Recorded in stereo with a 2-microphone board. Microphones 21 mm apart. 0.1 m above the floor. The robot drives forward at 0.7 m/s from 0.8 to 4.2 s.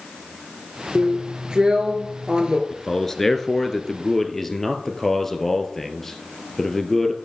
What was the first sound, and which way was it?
A drill, 35° right (ahead or behind).